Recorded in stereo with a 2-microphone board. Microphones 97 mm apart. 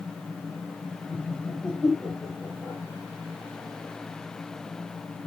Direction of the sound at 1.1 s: 25° left (ahead or behind).